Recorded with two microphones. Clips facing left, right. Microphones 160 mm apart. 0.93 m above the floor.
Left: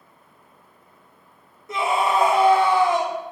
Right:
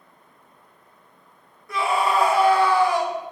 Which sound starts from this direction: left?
A scream, at 1.7 s.